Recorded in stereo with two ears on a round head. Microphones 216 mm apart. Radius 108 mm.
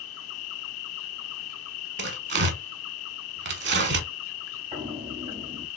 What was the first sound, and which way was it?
An insect, 65° left (ahead or behind).